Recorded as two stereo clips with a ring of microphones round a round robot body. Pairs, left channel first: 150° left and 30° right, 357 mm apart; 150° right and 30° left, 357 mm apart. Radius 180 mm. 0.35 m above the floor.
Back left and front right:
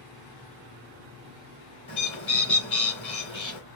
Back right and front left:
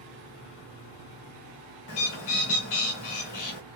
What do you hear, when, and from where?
1.9 s a bird: 135° right, 1.3 m